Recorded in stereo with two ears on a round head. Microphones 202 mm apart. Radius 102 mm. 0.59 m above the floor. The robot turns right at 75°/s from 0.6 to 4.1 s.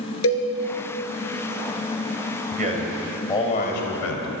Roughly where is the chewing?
I don't hear chewing.